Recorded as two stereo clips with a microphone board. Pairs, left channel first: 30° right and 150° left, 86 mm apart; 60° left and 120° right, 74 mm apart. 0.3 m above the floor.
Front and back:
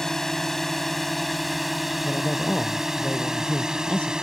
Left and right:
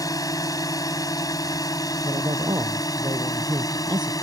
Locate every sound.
0.0 s a drone: 55° left; by 4.2 s 70° left
2.0 s a man speaking: 105° right